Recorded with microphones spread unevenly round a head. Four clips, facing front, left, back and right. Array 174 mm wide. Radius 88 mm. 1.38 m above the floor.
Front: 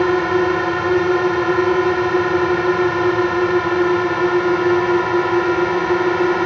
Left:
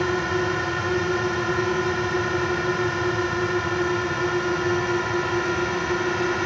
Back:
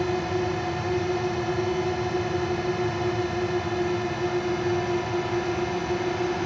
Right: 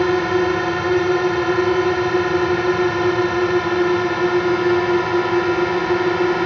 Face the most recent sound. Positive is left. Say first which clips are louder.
# right 7 dB, front 10 dB
turn(degrees=-25)